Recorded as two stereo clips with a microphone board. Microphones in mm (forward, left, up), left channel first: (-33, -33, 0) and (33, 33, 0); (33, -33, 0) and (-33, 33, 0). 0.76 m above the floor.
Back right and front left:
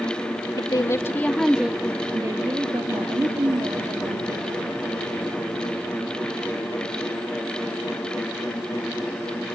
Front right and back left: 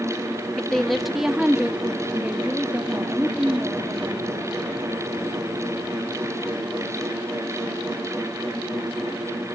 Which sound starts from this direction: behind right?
A woman speaking, at 0.6 s.